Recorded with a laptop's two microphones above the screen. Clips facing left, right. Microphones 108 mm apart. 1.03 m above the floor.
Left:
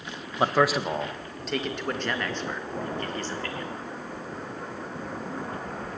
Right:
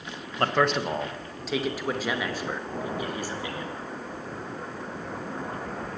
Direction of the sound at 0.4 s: 10° left (ahead or behind).